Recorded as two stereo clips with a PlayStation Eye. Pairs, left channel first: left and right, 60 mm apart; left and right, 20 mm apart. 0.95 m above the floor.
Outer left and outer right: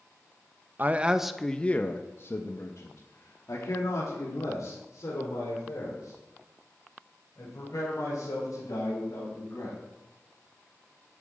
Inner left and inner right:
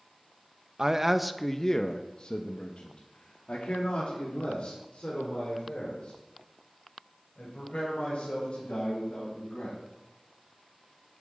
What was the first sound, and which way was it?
A man speaking, 30° right (ahead or behind).